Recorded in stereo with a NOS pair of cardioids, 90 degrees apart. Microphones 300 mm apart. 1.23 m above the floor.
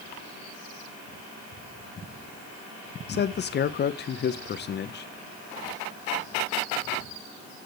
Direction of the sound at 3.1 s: 35° left.